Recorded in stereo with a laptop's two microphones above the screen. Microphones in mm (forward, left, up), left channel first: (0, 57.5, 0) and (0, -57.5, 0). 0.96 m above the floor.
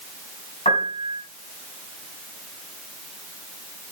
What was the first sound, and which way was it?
A piano, 75° left (ahead or behind).